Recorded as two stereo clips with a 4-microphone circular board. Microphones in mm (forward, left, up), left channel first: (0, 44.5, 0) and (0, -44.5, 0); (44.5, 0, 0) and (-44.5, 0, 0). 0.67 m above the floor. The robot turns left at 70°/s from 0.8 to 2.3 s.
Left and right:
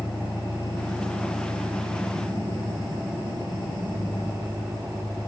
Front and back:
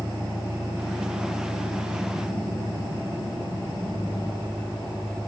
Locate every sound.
0.0 s an engine running: 65° left, 4 m; by 5.3 s 40° right, 4 m